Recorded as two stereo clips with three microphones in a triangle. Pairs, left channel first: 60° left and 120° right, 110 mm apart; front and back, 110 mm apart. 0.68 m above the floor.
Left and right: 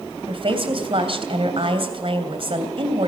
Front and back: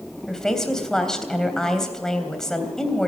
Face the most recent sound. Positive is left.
turn(degrees=-85)